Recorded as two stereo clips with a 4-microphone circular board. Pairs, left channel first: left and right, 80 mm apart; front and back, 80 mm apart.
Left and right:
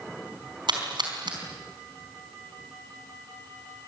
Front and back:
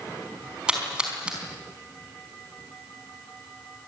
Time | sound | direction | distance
0.7 | a splash | 105° right | 4.5 m